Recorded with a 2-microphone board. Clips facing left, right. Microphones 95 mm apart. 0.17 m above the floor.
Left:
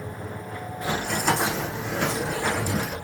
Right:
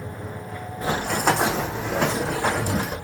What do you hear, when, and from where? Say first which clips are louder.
0.8 s running footsteps: right 3 dB; 35° right (ahead or behind), 0.7 m; by 3.0 s 45° right (ahead or behind), 1.0 m